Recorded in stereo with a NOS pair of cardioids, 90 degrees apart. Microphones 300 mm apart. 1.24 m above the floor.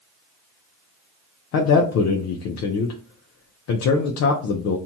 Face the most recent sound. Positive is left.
turn(degrees=60)